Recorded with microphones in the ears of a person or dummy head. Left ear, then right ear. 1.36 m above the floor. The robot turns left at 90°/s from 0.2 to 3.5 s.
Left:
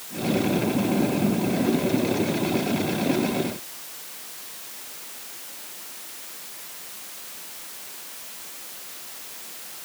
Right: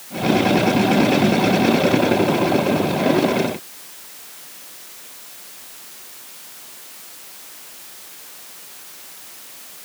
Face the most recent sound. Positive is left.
No sound to turn to.